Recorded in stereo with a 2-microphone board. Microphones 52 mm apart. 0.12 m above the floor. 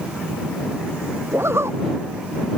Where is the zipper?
55° right (ahead or behind).